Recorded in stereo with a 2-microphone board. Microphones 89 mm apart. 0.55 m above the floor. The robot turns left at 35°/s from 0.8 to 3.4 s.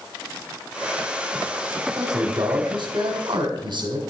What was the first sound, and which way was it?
A man speaking, 55° right.